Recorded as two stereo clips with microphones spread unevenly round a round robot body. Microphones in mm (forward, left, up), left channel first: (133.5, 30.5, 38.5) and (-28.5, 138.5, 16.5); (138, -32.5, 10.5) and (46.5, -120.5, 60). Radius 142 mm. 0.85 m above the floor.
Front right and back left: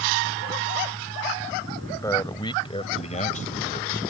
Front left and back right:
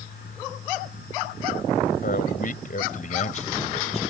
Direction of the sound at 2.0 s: 40° left.